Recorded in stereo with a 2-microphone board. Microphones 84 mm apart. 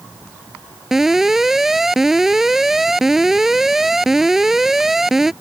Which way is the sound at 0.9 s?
5° right (ahead or behind).